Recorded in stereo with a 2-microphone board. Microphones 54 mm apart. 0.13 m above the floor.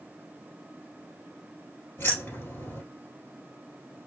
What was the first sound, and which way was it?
Keys jangling, 45° left (ahead or behind).